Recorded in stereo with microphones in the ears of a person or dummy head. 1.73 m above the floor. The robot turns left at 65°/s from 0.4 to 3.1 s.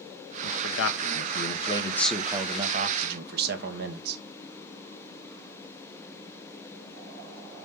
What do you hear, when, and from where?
0.4 s a man speaking: 110° left, 1.2 m; by 4.2 s 65° right, 1.2 m